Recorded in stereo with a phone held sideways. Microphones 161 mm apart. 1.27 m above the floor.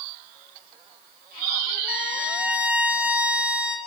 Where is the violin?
10° right (ahead or behind), 1.0 m.